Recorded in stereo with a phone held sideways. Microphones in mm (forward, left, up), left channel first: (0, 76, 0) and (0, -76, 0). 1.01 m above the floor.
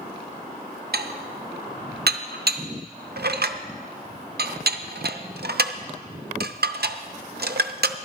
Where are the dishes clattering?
80° right, 0.6 m.